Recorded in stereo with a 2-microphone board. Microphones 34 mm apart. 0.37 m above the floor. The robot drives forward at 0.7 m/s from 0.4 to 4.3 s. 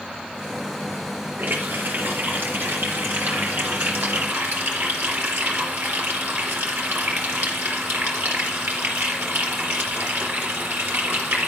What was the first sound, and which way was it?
A running tap, 70° right (ahead or behind).